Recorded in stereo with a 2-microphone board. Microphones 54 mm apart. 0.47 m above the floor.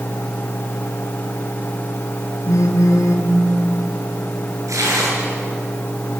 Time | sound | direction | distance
2.5 | a phone buzzing | 80° left | 2.5 m
4.7 | tearing paper | 85° right | 6 m